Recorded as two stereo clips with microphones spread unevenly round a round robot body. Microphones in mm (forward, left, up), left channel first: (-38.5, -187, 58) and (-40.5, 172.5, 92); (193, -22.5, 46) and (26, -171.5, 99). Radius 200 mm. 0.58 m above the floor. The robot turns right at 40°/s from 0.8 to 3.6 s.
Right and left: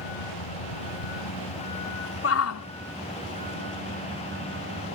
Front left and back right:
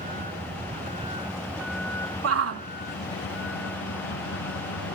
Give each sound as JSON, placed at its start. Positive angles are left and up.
{"t": 0.0, "sound": "a vehicle", "azimuth_deg": -85}
{"t": 2.2, "sound": "a shout", "azimuth_deg": -135}